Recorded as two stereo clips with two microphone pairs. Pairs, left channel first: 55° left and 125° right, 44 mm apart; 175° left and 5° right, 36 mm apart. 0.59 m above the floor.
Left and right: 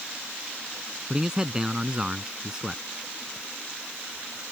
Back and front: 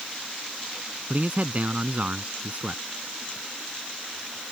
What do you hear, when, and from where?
1.1 s a man speaking: 50° right